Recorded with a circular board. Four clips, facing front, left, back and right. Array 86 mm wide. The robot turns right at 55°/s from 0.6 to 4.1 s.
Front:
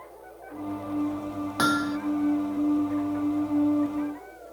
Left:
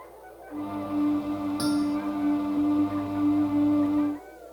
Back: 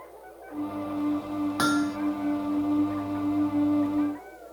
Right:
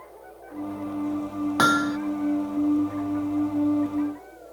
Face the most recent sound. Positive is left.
turn(degrees=50)